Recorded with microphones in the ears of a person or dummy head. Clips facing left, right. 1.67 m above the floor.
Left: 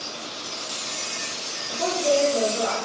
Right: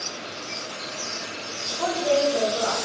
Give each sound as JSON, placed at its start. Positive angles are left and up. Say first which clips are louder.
{"t": 1.7, "sound": "a woman speaking", "louder": "even", "side_deg": 20, "distance_m": 2.0}